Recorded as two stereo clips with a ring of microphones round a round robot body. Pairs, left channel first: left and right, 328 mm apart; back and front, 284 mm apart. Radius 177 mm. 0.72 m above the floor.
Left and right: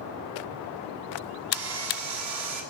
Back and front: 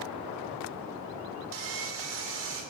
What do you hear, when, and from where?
1.5 s sawing: 50° right, 2.5 m